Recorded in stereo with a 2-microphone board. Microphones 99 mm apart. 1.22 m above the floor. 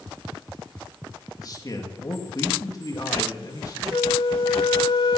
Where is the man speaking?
40° left (ahead or behind), 2 m.